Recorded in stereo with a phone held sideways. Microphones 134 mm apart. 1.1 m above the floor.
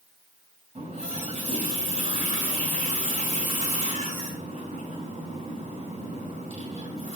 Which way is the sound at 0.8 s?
50° right (ahead or behind).